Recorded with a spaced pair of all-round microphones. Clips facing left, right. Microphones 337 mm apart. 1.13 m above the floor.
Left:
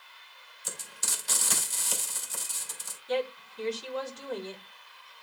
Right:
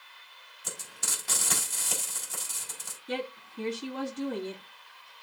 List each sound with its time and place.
0.6 s frying: 70° right (ahead or behind), 4.5 m
3.1 s a woman speaking: 65° right (ahead or behind), 2.5 m